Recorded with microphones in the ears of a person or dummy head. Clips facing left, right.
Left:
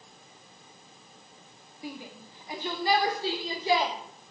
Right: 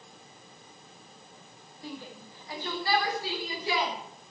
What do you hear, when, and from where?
1.8 s a shout: 20° left (ahead or behind), 1.8 m; by 3.9 s 30° left (ahead or behind), 4 m